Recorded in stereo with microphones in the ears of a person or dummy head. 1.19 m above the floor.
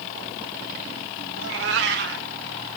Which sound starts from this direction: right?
A cat meowing, at 1.4 s.